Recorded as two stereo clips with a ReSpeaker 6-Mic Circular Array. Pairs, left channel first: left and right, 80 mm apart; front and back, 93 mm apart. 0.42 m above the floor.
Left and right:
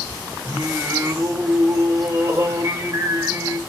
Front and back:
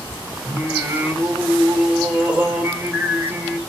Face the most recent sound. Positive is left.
turn(degrees=-110)